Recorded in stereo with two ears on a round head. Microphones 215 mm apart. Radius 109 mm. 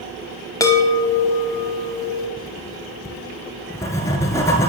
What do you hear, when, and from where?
0.6 s a chime: 15° left (ahead or behind), 1.5 m
2.4 s writing: 10° left (ahead or behind), 1.9 m